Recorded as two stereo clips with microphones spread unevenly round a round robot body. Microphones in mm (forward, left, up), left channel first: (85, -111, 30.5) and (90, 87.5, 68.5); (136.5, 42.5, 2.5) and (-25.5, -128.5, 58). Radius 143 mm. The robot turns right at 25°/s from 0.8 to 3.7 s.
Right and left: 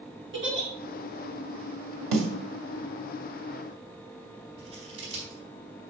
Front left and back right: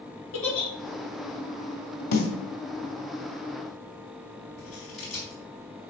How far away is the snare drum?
About 2 m.